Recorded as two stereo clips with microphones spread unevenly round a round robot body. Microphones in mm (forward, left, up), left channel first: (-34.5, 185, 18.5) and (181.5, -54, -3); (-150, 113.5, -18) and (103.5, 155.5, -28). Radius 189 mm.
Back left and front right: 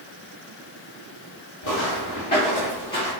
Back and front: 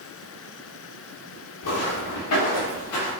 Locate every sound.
1.6 s footsteps: 170° right, 1.9 m; by 3.1 s 145° right, 2 m